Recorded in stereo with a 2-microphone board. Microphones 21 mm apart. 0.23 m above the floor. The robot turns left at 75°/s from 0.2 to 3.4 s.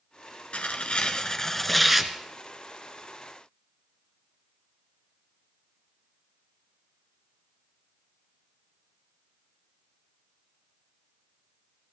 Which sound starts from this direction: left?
Tearing paper, at 0.5 s.